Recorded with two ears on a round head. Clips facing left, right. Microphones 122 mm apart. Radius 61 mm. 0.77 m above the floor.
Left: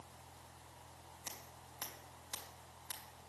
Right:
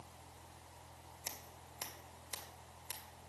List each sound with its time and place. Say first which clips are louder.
1.2 s scissors: right 1 dB; 25° right (ahead or behind), 2 m